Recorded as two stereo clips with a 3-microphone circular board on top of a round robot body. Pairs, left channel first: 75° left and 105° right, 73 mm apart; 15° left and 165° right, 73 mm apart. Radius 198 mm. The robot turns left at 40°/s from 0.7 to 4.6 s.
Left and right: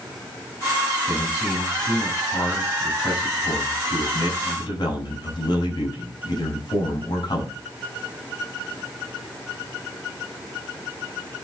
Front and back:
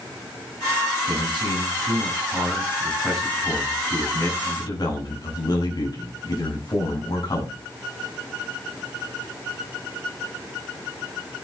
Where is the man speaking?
170° right, 9 m; by 7.5 s 50° left, 9 m.